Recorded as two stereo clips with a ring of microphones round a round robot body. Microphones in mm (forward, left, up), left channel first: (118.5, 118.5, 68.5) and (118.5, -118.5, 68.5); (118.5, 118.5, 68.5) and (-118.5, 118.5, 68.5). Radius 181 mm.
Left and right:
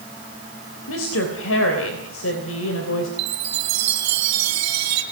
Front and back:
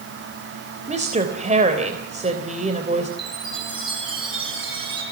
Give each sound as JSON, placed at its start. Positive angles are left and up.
{"t": 0.9, "sound": "a woman speaking", "azimuth_deg": 120, "distance_m": 3.5}
{"t": 3.2, "sound": "a chime", "azimuth_deg": -105, "distance_m": 3.0}